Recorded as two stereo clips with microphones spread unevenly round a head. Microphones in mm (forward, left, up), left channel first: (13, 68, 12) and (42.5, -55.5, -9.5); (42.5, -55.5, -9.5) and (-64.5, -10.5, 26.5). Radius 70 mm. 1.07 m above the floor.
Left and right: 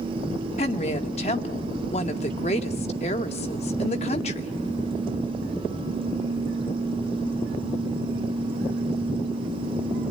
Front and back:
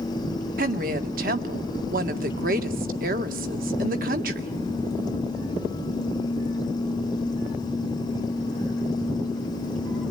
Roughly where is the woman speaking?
Behind left.